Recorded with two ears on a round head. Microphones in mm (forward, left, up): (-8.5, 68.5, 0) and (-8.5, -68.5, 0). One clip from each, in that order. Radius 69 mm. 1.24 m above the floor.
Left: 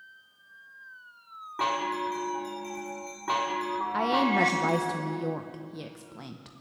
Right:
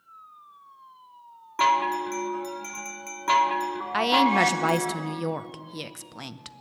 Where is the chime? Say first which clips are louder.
Right 6 dB; 55° right (ahead or behind), 1.2 m.